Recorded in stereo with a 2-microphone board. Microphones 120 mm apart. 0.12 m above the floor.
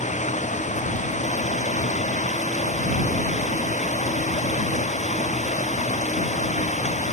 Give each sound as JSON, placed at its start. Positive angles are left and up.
{"t": 0.0, "sound": "running water", "side_deg": 80}